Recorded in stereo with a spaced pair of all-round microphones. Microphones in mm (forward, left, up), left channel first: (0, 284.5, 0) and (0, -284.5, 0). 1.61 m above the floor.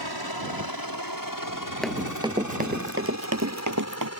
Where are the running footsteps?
Centre (ahead or behind); by 4.1 s 35° right (ahead or behind).